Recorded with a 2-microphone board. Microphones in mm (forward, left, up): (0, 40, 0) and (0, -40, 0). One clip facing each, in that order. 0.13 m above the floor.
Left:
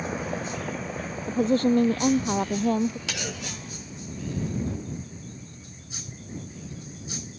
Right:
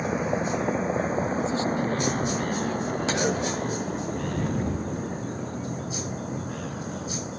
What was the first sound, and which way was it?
A vehicle, 15° right (ahead or behind).